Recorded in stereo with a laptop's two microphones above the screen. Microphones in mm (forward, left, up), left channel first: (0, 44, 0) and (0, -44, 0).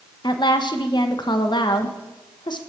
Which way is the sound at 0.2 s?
55° left (ahead or behind).